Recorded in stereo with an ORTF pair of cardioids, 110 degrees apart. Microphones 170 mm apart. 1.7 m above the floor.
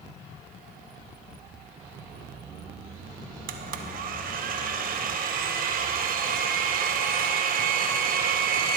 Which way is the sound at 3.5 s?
55° right.